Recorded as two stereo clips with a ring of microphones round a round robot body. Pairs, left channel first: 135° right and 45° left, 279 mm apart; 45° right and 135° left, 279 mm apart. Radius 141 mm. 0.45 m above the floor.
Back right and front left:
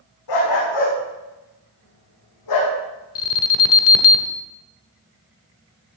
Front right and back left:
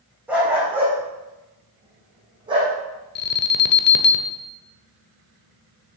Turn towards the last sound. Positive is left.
turn(degrees=-95)